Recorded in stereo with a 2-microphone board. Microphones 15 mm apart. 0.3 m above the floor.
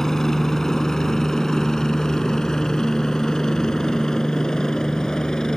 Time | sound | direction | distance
0.0 | a helicopter | 40° left (ahead or behind) | ?